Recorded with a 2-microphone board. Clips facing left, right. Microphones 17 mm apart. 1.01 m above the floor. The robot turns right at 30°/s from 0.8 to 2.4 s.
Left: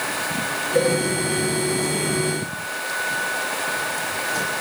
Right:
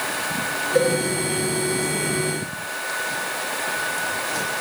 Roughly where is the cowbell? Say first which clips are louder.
Even; right.